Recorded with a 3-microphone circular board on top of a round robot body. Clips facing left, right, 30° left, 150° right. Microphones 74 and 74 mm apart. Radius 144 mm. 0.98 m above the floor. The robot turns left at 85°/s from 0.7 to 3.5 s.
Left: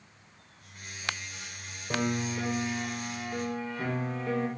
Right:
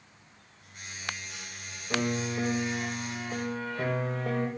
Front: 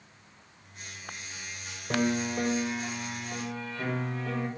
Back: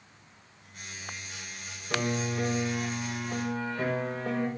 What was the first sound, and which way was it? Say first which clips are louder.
A piano: even, front 2 dB; 40° left.